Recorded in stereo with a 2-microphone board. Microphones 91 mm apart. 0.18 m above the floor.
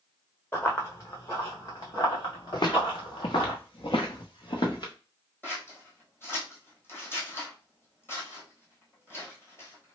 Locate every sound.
0.5 s running footsteps: 25° left (ahead or behind), 1.0 m; by 3.5 s 65° left (ahead or behind), 2.5 m
2.5 s footsteps: 50° left (ahead or behind), 1.0 m
5.4 s scissors: 25° left (ahead or behind), 1.4 m